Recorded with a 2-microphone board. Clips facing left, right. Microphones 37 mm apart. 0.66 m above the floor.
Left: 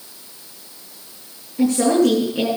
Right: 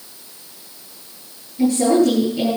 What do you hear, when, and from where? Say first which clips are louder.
1.6 s a woman speaking: right 1 dB; 75° left (ahead or behind), 8.5 m